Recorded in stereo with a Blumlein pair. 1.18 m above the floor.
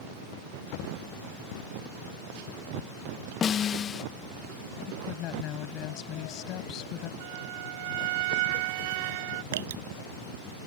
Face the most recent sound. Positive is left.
turn(degrees=-60)